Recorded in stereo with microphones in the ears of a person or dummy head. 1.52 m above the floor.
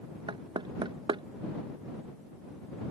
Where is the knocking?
20° right (ahead or behind).